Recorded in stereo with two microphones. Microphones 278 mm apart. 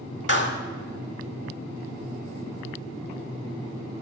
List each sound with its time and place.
0.3 s a clap: 40° left (ahead or behind), 1.8 m